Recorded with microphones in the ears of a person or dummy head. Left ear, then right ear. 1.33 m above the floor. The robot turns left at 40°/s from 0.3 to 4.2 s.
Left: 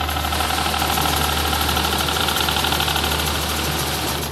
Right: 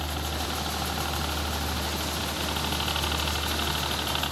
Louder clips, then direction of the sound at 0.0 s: Left 10 dB; 35° left (ahead or behind).